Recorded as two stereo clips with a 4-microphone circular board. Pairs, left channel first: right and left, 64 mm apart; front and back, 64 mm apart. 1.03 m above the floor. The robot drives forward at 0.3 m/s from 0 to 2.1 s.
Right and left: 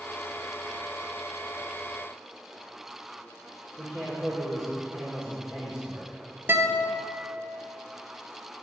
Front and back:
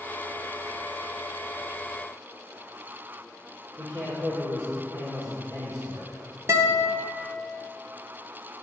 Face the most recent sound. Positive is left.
turn(degrees=140)